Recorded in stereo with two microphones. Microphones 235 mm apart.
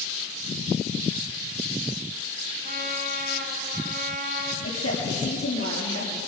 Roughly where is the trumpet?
Right.